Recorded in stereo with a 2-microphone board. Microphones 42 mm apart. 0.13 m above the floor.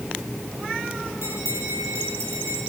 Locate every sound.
1.2 s a bell: 80° right, 9 m